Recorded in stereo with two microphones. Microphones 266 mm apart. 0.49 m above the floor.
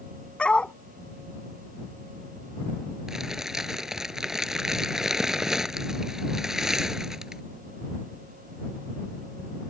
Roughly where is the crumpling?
Centre.